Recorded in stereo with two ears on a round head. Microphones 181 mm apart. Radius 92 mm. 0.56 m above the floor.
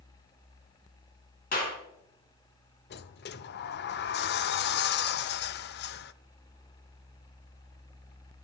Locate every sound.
1.5 s a clap: 45° left (ahead or behind), 4 m
2.9 s a sliding door: 55° left (ahead or behind), 0.6 m